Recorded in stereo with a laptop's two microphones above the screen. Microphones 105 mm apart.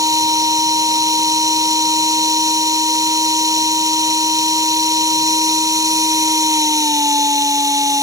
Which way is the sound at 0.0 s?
35° right (ahead or behind).